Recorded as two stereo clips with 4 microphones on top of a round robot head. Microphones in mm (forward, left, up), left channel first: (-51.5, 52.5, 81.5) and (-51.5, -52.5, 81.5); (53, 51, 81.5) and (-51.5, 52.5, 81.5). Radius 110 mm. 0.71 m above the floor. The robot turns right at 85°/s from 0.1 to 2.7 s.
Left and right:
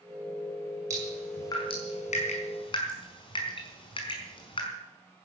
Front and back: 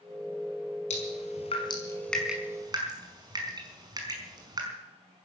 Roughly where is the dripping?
Ahead right.